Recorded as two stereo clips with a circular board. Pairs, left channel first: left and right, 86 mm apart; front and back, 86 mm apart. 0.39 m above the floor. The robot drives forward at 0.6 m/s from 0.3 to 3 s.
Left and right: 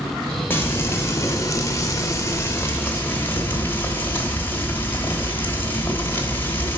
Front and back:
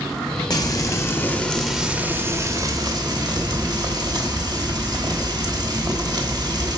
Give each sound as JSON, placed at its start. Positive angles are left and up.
{"t": 0.5, "sound": "frying", "azimuth_deg": 30, "distance_m": 1.0}